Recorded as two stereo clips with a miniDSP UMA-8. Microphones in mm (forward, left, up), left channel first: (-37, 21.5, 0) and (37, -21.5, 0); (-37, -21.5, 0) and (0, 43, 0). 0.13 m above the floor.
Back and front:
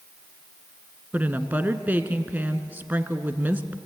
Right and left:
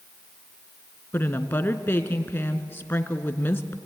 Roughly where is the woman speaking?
Right.